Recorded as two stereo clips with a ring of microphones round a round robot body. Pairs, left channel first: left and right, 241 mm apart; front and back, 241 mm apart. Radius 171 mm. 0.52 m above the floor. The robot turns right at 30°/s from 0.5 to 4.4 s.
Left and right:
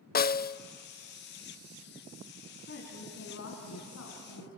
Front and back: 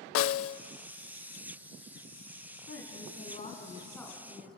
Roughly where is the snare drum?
Ahead left.